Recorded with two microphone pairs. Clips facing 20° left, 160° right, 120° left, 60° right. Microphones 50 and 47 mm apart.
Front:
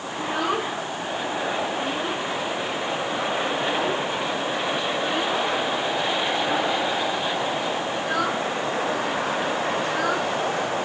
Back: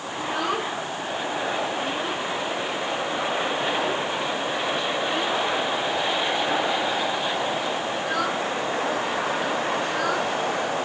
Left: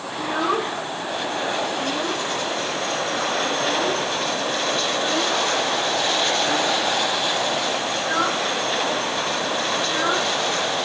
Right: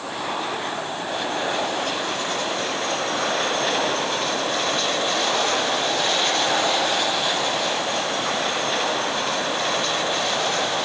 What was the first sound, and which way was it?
A child speaking, 105° left.